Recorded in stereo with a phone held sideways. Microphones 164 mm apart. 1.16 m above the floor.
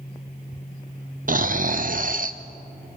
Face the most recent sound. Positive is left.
turn(degrees=-55)  # may be behind; listen again after turning